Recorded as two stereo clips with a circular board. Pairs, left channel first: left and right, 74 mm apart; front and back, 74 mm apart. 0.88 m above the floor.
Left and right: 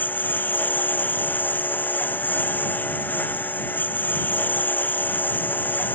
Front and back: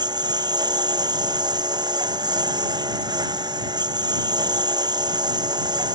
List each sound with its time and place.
0.0 s a lawn mower: 155° left